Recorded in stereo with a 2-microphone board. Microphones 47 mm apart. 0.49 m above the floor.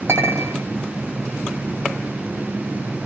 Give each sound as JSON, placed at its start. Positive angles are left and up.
{"t": 0.1, "sound": "a clink", "side_deg": -60, "distance_m": 1.8}